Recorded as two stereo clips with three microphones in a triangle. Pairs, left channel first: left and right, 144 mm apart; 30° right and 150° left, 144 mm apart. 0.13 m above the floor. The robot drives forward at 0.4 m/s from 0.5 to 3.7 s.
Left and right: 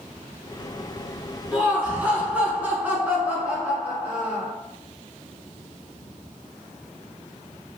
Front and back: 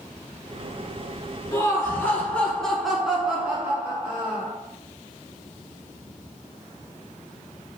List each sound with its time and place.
1.5 s laughter: 30° right, 1.2 m; by 4.5 s 155° right, 1.2 m